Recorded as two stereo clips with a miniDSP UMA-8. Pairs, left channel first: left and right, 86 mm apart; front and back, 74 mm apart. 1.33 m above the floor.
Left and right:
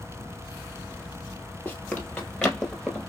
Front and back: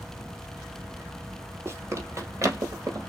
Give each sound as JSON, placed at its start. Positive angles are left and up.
{"t": 1.6, "sound": "running footsteps", "azimuth_deg": 150, "distance_m": 1.7}